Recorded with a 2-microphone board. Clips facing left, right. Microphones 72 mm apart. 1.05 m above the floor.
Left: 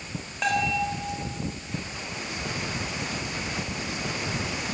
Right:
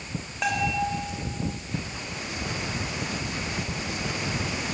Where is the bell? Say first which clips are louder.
Left 1 dB; 5° right (ahead or behind), 4.5 m.